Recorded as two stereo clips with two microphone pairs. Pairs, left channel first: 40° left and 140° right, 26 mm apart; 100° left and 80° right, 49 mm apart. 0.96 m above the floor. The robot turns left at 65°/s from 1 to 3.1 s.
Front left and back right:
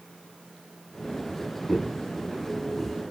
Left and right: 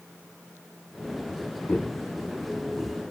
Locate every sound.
1.7 s footsteps: 110° left, 1.1 m; by 3.0 s 30° right, 1.2 m